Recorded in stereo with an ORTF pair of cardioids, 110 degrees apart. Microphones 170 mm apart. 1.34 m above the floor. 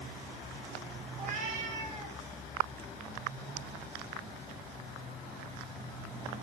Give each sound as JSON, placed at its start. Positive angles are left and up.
{"t": 1.1, "sound": "a cat meowing", "azimuth_deg": -50, "distance_m": 5.5}